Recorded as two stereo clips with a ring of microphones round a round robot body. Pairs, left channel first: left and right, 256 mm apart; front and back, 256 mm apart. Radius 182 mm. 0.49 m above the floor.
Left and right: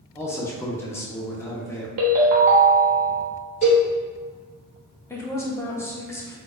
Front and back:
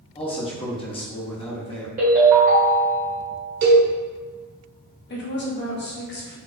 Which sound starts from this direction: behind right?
A ringtone, at 2.0 s.